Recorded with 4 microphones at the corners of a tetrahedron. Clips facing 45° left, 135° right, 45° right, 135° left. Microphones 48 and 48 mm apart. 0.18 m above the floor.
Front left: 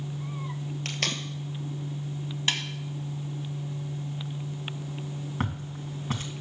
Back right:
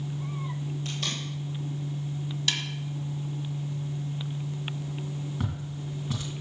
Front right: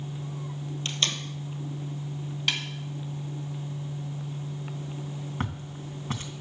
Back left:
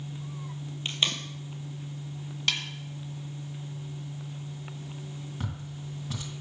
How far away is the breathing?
No breathing in this recording.